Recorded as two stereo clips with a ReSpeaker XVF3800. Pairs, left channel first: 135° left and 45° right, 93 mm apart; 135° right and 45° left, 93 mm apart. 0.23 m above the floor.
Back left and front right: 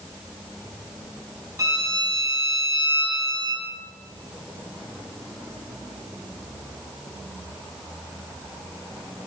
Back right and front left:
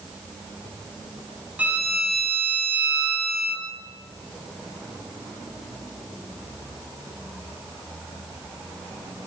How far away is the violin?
About 0.9 m.